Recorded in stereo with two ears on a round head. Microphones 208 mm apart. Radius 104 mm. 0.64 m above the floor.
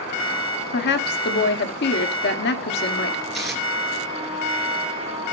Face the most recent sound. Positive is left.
turn(degrees=0)  # may be behind; listen again after turning